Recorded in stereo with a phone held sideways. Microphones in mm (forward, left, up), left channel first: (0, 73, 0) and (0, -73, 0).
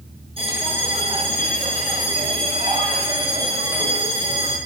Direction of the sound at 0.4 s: 35° right (ahead or behind).